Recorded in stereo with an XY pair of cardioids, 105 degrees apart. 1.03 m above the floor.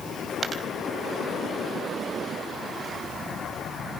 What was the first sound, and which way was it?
A dropped coin, 45° right.